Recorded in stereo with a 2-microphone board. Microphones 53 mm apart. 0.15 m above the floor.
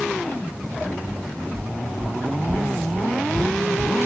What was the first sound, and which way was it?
Footsteps, 25° left (ahead or behind).